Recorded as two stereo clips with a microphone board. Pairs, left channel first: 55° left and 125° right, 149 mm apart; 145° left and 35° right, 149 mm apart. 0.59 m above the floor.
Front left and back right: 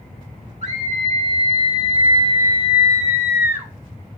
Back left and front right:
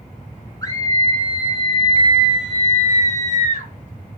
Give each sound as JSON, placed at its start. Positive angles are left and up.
{"t": 0.6, "sound": "a scream", "azimuth_deg": -150, "distance_m": 2.5}